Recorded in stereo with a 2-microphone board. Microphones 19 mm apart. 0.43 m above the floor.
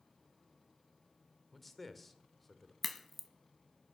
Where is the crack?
5° left (ahead or behind), 1.2 m.